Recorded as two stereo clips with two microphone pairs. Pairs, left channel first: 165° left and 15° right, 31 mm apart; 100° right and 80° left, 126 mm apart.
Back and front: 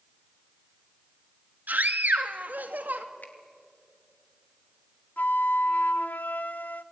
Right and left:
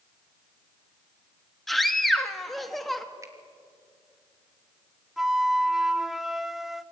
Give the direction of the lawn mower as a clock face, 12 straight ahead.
No lawn mower in this recording.